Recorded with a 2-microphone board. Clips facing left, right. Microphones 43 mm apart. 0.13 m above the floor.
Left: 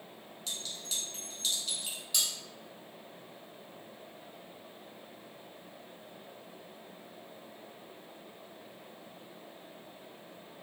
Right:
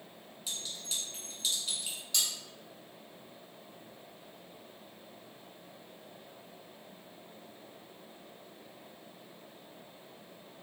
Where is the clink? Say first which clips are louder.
Even; 10° right (ahead or behind), 1.0 m.